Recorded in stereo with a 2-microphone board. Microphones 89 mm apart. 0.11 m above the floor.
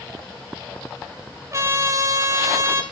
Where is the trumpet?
35° right (ahead or behind), 2.5 m.